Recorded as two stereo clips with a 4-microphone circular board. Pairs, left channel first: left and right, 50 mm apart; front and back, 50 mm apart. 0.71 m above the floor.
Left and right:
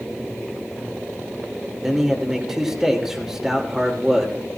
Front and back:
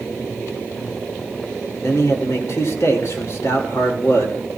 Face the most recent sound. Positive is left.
turn(degrees=-5)